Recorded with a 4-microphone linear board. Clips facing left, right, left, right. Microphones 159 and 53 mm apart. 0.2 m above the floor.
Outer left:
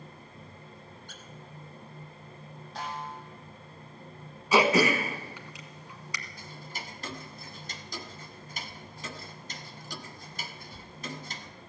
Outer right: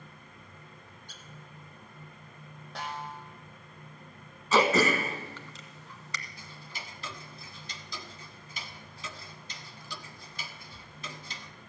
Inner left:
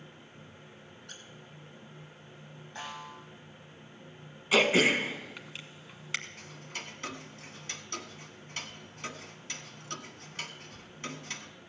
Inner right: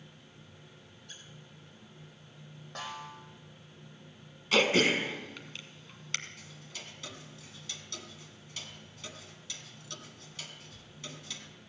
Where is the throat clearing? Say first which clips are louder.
Outer left 1 dB, inner left 2 dB; 10° left (ahead or behind), 1.4 m.